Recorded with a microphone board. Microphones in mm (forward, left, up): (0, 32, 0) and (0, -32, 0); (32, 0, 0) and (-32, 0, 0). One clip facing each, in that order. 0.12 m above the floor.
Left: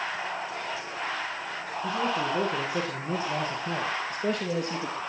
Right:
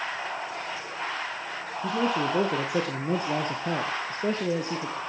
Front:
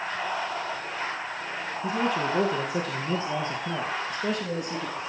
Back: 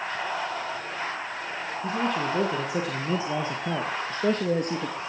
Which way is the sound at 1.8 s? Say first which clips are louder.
Right 2 dB, front 1 dB; 85° right.